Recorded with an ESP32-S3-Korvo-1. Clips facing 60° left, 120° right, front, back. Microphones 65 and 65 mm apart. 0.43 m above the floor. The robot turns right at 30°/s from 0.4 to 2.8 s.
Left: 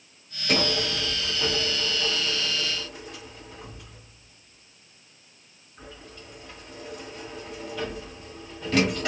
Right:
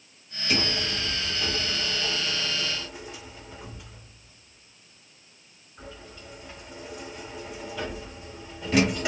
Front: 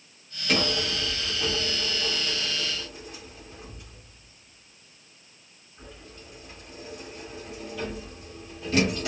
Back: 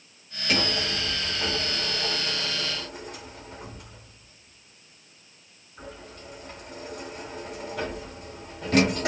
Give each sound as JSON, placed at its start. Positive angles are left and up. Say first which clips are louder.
{"t": 0.5, "sound": "a sliding door", "louder": "left 3 dB, front 1 dB", "azimuth_deg": 90, "distance_m": 1.1}